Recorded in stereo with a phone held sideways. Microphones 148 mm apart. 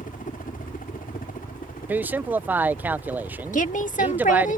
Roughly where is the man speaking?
Centre.